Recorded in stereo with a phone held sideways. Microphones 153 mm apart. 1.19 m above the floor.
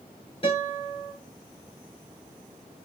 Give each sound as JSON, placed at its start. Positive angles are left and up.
{"t": 0.4, "sound": "a guitar", "side_deg": 35, "distance_m": 3.0}